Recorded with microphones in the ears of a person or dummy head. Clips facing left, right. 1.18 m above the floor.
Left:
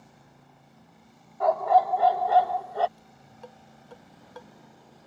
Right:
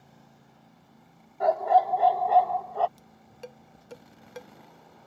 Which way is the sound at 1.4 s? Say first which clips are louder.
Left 1 dB; 20° right (ahead or behind).